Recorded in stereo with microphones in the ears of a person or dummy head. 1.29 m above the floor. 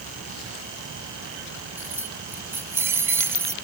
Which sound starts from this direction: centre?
Keys jangling, at 1.8 s.